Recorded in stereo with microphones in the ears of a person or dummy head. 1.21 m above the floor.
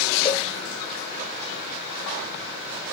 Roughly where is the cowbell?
Left.